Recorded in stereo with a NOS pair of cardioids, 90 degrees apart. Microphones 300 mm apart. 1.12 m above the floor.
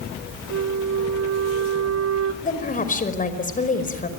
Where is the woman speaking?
25° left, 5 m.